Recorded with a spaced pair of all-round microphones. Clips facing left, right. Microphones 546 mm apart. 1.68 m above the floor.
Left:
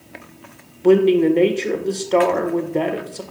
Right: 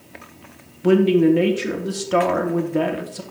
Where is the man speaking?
35° right (ahead or behind), 1.4 m.